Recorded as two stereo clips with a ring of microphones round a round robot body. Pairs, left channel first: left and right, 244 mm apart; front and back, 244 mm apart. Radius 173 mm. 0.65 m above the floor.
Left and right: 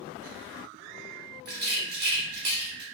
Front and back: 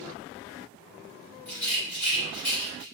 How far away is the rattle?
About 1.1 m.